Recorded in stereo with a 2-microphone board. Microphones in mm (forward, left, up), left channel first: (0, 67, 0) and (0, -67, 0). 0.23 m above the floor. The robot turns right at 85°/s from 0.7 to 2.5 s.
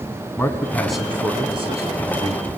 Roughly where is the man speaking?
Behind.